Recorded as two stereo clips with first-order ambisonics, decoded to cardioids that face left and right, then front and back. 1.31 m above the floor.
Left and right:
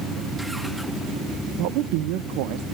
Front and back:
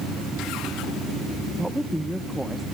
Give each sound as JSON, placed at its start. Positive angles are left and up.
{"t": 1.6, "sound": "a woman speaking", "azimuth_deg": -90, "distance_m": 0.7}